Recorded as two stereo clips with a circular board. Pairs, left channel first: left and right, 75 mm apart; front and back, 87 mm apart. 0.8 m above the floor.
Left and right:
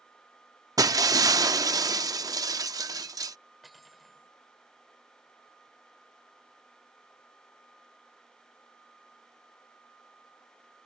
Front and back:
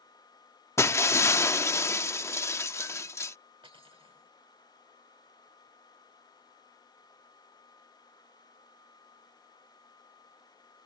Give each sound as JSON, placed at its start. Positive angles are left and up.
{"t": 0.8, "sound": "breaking glass", "azimuth_deg": -55}
{"t": 3.6, "sound": "cutlery clinking", "azimuth_deg": 180}